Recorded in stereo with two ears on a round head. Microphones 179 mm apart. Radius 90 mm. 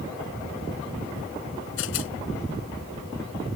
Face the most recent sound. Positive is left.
turn(degrees=75)  # may be behind; listen again after turning